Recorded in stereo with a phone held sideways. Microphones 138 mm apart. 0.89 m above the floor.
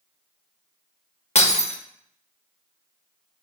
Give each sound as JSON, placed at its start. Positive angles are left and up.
{"t": 1.4, "sound": "breaking glass", "side_deg": 50, "distance_m": 0.8}